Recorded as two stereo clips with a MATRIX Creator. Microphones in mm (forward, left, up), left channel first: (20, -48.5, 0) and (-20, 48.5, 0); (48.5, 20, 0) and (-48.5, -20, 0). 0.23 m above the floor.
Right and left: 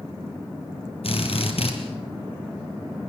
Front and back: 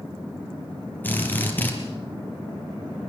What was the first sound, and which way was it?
A drill, 50° right.